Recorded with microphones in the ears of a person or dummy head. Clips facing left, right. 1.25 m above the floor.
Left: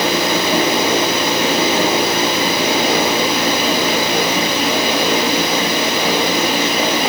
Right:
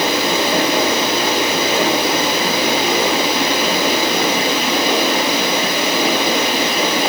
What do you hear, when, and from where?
Only background noise.